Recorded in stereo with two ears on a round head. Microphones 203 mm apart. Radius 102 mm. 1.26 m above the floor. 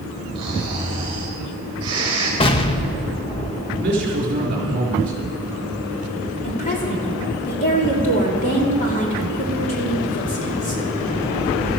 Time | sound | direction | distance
0.3 | snoring | 25° right (ahead or behind) | 4 m
2.4 | an explosion | 25° left (ahead or behind) | 0.7 m
3.7 | a man speaking | 40° right (ahead or behind) | 4 m
6.4 | a woman speaking | 35° left (ahead or behind) | 3 m